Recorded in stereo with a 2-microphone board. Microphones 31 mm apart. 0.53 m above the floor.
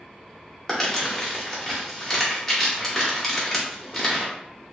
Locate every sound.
0.7 s crumpling: 10° left (ahead or behind), 0.9 m